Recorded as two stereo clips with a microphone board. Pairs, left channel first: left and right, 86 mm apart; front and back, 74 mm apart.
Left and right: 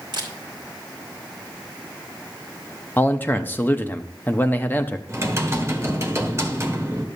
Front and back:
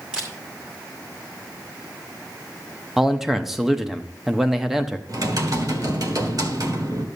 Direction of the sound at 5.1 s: 145° right.